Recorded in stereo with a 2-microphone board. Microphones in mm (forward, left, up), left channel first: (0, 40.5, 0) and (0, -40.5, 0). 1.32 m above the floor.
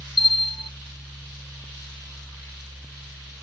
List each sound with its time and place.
0.2 s a bell: 70° left (ahead or behind)